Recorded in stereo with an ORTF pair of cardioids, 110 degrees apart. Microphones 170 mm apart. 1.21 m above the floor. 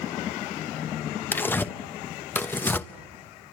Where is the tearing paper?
10° left, 0.9 m.